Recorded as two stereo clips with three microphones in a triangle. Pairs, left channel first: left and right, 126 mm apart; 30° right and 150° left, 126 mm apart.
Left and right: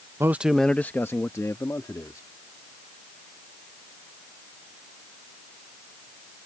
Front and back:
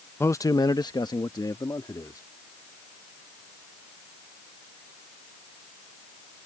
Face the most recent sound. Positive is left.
turn(degrees=30)